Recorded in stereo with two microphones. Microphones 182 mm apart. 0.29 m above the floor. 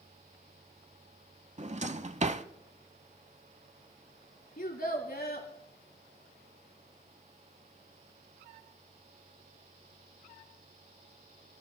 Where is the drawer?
40° right (ahead or behind), 0.6 m.